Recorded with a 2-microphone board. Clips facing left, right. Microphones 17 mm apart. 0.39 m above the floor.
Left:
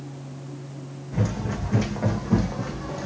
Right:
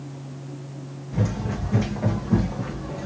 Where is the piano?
No piano in this recording.